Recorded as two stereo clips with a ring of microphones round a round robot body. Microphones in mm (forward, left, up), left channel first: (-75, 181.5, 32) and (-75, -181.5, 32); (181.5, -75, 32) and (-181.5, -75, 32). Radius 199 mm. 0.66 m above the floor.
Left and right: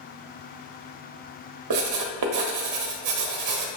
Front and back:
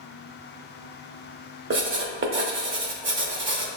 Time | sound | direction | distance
1.7 | writing | 125° right | 0.9 m